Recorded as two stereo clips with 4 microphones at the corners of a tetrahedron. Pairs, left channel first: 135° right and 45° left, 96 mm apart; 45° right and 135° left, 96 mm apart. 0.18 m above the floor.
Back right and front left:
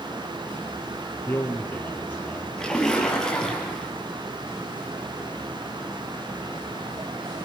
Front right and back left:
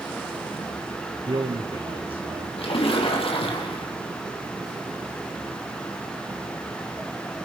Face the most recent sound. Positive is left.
turn(degrees=-50)